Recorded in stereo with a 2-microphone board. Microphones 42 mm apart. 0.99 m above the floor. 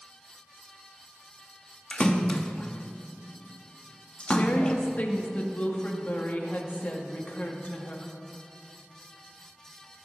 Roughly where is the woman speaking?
Left.